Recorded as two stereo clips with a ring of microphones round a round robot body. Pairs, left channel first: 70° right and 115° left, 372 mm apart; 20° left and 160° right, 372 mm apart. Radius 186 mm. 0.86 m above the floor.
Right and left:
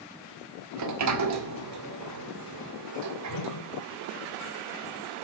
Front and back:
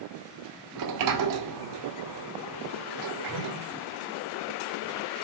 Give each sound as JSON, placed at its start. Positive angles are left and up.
{"t": 0.8, "sound": "a sliding door", "azimuth_deg": 160, "distance_m": 2.0}
{"t": 3.3, "sound": "a whoosh", "azimuth_deg": -105, "distance_m": 2.0}